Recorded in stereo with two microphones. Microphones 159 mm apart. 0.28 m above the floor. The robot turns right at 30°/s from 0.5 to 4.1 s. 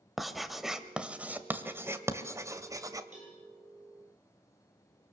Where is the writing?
Centre (ahead or behind), 1.5 m; by 3.0 s 20° right (ahead or behind), 1.5 m.